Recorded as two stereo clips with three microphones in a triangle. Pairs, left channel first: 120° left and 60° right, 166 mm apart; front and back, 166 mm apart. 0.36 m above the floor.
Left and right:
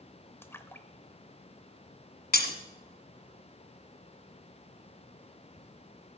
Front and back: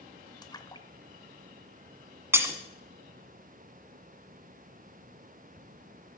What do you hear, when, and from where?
0.4 s a splash: 55° left, 0.8 m
2.3 s breaking glass: 105° left, 1.4 m